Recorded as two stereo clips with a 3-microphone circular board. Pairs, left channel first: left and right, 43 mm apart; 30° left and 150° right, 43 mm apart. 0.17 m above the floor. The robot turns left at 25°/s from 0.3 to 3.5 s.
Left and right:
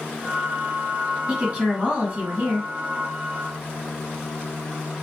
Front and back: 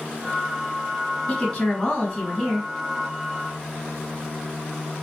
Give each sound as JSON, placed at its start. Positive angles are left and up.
{"t": 1.3, "sound": "a woman speaking", "azimuth_deg": -35, "distance_m": 1.7}